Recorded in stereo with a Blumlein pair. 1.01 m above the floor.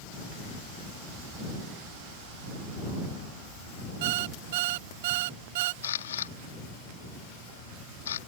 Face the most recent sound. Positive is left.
turn(degrees=65)